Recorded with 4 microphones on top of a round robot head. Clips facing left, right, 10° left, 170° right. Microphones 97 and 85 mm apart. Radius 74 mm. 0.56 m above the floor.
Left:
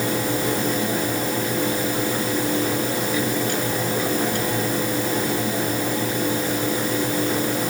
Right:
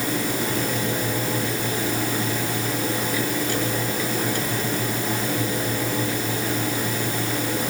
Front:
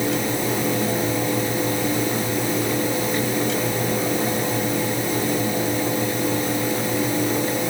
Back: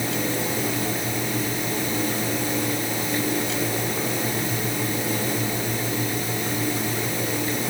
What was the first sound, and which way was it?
Only background noise.